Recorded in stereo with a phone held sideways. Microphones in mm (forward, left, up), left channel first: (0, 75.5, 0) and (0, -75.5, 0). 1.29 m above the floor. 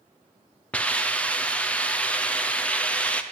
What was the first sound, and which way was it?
A hiss, 10° left (ahead or behind).